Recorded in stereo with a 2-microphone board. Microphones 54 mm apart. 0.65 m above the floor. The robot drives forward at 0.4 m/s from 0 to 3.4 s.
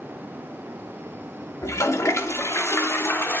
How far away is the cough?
No cough in this recording.